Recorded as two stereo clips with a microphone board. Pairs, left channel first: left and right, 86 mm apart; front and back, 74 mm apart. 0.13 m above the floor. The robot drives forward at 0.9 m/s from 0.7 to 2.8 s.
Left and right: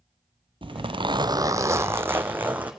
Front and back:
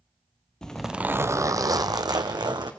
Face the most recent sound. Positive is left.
turn(degrees=-165)